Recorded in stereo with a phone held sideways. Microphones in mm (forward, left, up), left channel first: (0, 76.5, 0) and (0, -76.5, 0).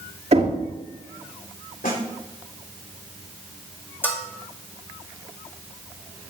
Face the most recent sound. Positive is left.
turn(degrees=15)  # may be behind; listen again after turning